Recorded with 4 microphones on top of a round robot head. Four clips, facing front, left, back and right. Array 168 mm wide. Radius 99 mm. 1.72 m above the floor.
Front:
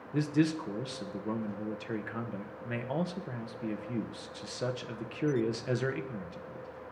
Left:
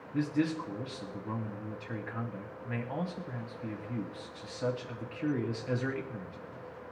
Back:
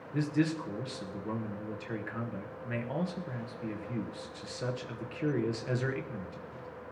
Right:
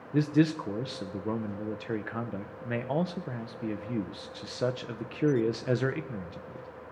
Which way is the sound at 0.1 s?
80° right.